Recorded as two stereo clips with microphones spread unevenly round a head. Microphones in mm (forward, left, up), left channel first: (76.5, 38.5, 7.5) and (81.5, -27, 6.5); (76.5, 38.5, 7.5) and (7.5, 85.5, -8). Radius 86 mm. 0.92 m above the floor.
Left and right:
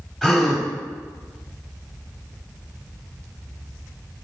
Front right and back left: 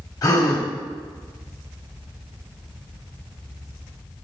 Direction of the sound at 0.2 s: 5° left.